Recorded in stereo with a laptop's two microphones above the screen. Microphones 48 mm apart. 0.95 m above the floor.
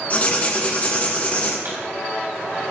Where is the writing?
30° left (ahead or behind), 1.1 m.